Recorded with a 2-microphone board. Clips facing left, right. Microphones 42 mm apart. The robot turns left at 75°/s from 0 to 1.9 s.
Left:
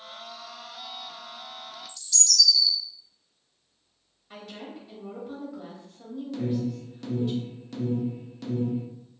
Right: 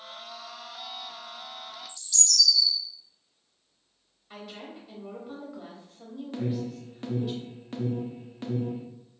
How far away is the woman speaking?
About 0.9 m.